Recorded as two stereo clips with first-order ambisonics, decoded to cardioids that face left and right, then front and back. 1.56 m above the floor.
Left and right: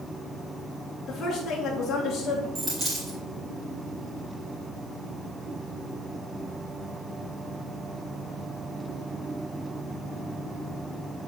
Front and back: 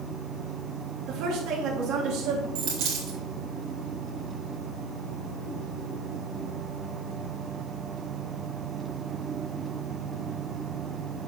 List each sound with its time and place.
1.1 s a woman speaking: 165° left, 2 m
2.5 s a dropped coin: 165° right, 3 m